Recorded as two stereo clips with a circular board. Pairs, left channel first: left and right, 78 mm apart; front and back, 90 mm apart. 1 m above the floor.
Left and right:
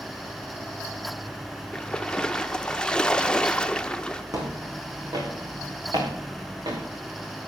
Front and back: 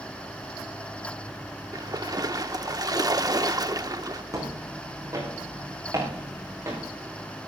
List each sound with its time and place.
1.7 s a splash: 165° left, 0.7 m
4.3 s footsteps: 130° right, 4.5 m; by 6.8 s 120° right, 5.5 m